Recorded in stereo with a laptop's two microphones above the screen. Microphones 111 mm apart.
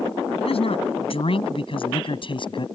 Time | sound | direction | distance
0.4 | a man speaking | 60° left (ahead or behind) | ?